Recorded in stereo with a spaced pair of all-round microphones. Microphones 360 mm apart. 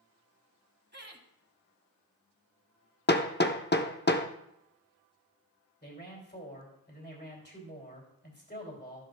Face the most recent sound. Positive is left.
turn(degrees=30)  # may be behind; listen again after turning